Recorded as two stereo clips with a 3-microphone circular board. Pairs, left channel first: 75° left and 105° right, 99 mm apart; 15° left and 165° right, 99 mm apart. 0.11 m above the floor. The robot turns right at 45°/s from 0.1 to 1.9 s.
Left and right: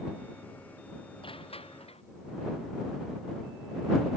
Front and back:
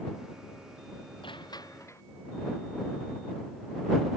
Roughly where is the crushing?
Ahead left.